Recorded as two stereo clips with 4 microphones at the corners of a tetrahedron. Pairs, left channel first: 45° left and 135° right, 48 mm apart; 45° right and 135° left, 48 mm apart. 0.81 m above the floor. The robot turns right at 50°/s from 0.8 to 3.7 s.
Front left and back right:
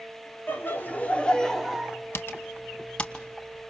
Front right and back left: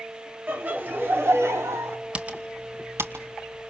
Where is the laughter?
90° left, 2 m; by 2.0 s 150° left, 2 m.